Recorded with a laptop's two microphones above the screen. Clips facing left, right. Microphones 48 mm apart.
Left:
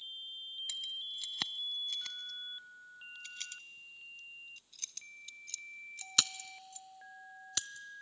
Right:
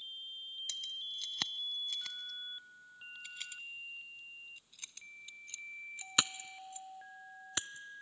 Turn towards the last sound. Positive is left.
turn(degrees=-25)  # may be behind; listen again after turning